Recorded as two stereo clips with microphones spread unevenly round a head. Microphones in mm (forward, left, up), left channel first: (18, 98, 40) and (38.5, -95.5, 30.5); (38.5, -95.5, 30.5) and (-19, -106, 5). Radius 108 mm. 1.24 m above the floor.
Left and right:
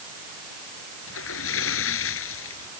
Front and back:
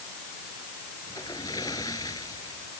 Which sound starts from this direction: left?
A splash, at 1.1 s.